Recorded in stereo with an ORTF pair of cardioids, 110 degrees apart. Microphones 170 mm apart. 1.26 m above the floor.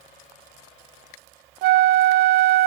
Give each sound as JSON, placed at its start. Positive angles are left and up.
{"t": 1.6, "sound": "a flute", "azimuth_deg": -65, "distance_m": 0.5}